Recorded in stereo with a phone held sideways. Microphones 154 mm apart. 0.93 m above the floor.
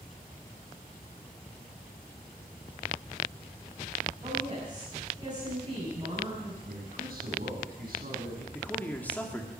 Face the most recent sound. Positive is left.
turn(degrees=10)  # may be behind; listen again after turning